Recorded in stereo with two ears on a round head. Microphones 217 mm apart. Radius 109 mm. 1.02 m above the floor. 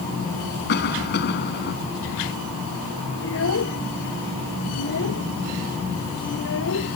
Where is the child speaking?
60° left (ahead or behind).